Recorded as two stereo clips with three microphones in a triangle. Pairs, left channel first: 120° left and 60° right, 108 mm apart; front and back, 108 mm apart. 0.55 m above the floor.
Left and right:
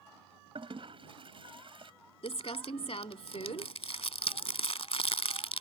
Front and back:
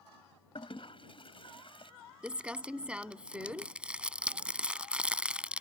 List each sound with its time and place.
0.6 s a toilet flushing: 30° right
2.2 s crumpling: 100° left